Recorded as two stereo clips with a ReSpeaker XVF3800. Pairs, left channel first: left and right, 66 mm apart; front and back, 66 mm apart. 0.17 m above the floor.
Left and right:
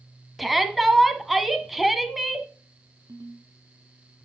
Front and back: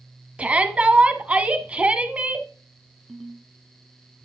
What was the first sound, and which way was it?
A shout, 175° right.